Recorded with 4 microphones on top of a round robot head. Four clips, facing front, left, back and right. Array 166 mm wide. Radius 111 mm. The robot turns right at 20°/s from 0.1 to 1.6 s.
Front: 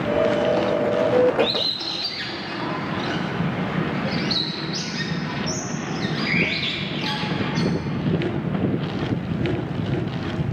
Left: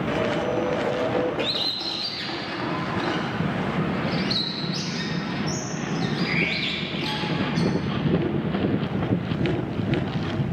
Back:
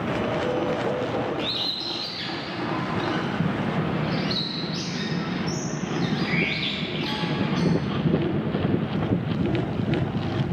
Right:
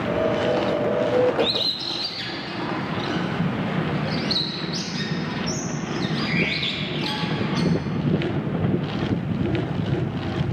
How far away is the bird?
About 1.2 m.